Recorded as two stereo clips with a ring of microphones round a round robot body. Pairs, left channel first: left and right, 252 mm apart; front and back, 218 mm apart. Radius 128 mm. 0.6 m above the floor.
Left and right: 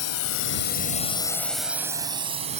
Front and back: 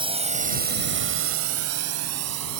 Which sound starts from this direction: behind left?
A drone, at 0.0 s.